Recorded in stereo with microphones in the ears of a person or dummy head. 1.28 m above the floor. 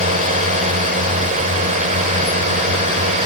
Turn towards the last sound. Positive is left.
turn(degrees=-35)  # may be behind; listen again after turning